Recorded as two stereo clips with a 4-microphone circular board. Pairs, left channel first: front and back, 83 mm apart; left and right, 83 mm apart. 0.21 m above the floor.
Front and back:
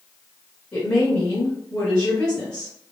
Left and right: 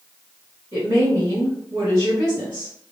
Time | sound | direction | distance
0.7 | a woman speaking | 35° right | 1.7 m